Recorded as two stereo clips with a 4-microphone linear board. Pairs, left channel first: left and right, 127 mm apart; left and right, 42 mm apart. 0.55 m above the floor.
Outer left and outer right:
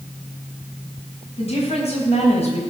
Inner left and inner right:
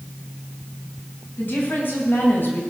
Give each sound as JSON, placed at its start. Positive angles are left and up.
{"t": 1.4, "sound": "a woman speaking", "side_deg": 50, "distance_m": 4.5}